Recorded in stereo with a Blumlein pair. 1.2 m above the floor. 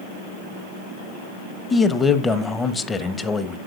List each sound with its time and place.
1.7 s a man speaking: 15° left, 0.7 m